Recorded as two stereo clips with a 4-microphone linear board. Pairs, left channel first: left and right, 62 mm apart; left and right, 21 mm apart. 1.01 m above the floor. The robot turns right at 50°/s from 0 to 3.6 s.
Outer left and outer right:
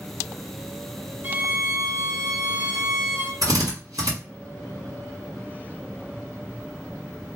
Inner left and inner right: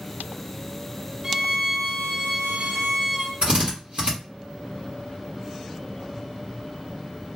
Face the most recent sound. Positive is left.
turn(degrees=-75)  # may be behind; listen again after turning